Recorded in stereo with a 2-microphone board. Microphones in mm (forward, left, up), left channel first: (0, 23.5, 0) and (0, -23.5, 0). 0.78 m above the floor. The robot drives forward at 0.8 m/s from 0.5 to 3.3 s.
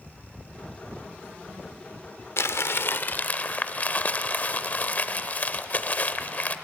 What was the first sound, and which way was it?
Crumpling, 60° left (ahead or behind).